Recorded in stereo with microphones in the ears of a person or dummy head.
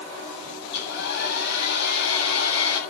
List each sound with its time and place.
0.7 s a hair dryer: 60° left (ahead or behind), 7.5 m